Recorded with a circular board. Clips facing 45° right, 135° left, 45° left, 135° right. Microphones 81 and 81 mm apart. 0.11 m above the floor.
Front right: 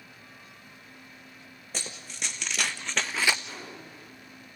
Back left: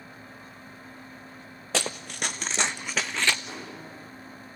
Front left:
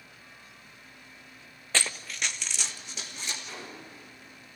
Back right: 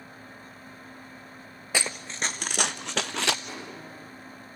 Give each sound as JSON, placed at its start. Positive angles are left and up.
{"t": 1.7, "sound": "running footsteps", "azimuth_deg": 145, "distance_m": 0.7}
{"t": 3.5, "sound": "a gunshot", "azimuth_deg": -150, "distance_m": 9.5}